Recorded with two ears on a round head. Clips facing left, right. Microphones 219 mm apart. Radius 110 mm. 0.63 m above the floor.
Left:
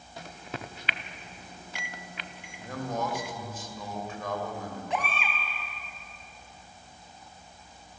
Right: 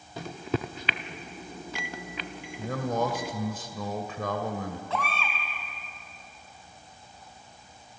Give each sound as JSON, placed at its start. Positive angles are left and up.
{"t": 0.2, "sound": "a microwave", "side_deg": -65, "distance_m": 0.8}
{"t": 2.6, "sound": "a man speaking", "side_deg": -65, "distance_m": 2.5}
{"t": 4.9, "sound": "a baby crying", "side_deg": 15, "distance_m": 4.0}